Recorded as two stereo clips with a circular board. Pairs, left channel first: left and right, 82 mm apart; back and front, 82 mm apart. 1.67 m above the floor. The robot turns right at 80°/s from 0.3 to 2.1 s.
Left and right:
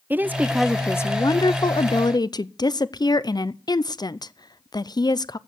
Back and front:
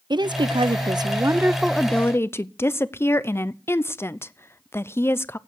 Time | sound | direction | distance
0.1 | a woman speaking | 25° right | 0.5 m